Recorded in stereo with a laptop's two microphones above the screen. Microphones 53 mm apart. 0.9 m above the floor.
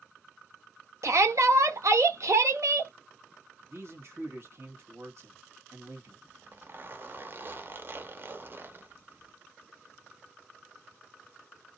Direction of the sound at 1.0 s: 70° right (ahead or behind).